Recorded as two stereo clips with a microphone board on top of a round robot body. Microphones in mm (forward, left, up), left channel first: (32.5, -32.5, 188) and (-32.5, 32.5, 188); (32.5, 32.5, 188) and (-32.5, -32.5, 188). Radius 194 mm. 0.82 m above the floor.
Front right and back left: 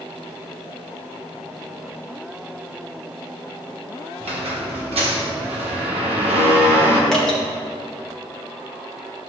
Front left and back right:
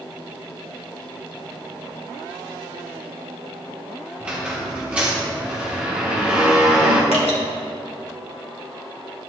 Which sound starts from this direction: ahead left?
Dripping, at 7.1 s.